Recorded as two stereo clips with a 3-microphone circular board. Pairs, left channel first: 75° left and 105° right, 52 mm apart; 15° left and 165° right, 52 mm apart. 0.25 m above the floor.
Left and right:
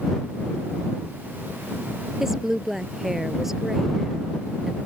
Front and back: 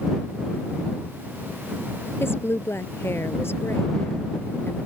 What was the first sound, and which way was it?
A woman speaking, 20° right.